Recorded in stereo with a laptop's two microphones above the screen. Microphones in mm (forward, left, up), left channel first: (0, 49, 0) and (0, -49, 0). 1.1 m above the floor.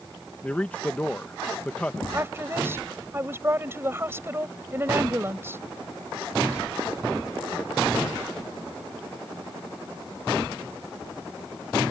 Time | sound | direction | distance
0.4 | a man speaking | 15° left (ahead or behind) | ?
2.1 | a woman speaking | 25° right (ahead or behind) | ?